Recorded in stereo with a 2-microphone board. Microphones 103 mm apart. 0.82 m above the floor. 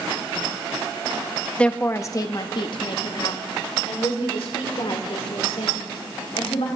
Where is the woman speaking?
10° left (ahead or behind), 0.8 m; by 6.7 s 80° left, 3.5 m.